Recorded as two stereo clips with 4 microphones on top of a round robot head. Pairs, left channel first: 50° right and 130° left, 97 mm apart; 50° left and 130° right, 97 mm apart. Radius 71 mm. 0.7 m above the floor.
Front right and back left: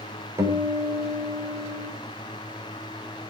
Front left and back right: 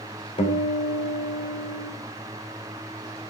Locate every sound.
0.4 s a guitar: 70° left, 3.5 m